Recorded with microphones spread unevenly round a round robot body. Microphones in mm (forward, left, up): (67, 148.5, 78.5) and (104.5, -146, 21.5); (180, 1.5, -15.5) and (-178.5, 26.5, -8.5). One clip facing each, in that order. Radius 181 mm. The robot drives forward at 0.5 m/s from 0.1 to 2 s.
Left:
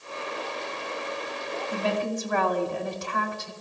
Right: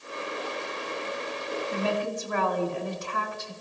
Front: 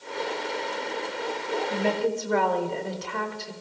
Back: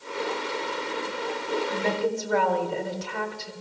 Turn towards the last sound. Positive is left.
turn(degrees=145)